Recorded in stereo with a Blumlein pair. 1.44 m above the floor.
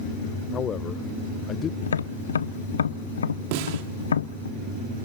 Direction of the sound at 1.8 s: 70° left.